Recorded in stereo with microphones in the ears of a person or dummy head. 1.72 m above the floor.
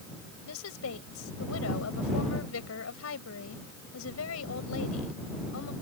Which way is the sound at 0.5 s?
80° left.